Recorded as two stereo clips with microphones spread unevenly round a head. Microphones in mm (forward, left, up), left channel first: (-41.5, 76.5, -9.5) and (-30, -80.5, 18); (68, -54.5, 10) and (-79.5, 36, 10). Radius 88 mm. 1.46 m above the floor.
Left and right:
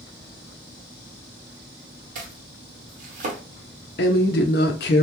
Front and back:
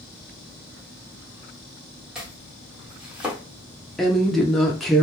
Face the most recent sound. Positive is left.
turn(degrees=60)